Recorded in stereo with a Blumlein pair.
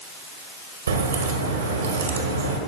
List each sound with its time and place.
0.9 s a crack: 70° right, 1.6 m